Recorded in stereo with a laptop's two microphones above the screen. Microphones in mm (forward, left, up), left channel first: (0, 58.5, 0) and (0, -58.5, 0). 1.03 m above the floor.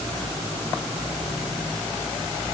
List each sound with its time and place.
Only background noise.